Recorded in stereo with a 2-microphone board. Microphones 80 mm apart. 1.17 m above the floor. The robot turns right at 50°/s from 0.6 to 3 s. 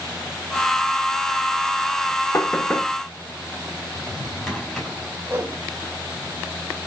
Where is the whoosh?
25° right (ahead or behind), 1.8 m.